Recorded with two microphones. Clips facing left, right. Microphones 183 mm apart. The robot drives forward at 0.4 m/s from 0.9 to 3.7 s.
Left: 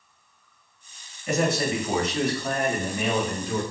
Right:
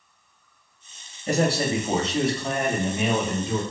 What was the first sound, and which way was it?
A man speaking, 35° right (ahead or behind).